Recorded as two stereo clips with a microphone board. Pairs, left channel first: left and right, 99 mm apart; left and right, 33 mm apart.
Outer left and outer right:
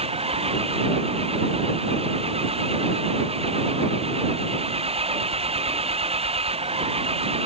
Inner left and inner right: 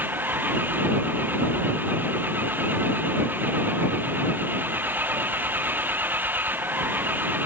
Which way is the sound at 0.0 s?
80° right.